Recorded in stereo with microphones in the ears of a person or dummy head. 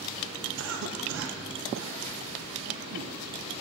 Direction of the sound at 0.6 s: 70° right (ahead or behind).